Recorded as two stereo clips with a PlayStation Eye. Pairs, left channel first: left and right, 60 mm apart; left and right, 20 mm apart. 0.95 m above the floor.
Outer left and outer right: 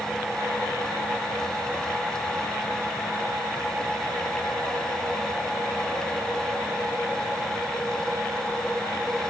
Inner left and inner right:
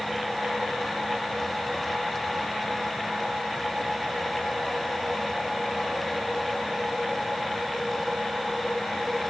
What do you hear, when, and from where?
Only background noise.